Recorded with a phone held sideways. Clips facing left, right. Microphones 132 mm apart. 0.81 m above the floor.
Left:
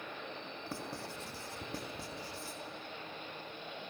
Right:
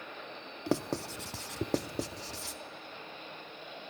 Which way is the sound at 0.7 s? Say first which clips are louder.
Right 13 dB; 85° right.